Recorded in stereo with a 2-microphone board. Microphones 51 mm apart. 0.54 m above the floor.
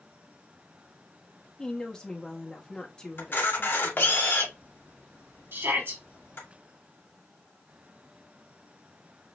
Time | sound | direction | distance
1.6 | a woman speaking | 15° left (ahead or behind) | 1.1 m
3.2 | a camera shutter | 50° left (ahead or behind) | 1.6 m
5.5 | a shout | 55° right (ahead or behind) | 3.5 m